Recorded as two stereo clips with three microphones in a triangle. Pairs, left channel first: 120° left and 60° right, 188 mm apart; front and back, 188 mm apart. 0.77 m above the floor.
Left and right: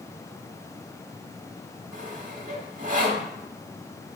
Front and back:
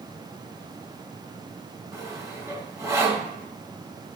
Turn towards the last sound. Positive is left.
turn(degrees=-105)